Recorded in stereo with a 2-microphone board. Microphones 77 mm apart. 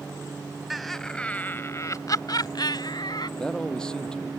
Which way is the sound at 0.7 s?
Centre (ahead or behind).